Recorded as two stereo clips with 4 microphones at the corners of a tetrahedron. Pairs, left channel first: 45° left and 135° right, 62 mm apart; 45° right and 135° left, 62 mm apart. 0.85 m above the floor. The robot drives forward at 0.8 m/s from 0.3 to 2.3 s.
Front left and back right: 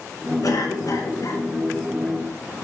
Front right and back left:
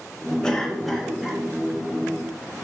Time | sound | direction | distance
0.4 | a cough | 35° left | 1.8 m